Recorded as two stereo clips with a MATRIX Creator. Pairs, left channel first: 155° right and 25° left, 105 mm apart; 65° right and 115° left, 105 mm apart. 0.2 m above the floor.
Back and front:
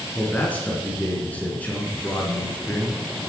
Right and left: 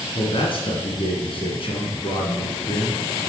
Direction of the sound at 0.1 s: 85° right.